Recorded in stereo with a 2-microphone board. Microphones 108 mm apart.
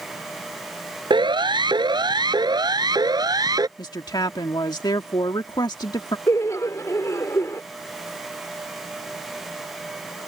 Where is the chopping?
I don't hear chopping.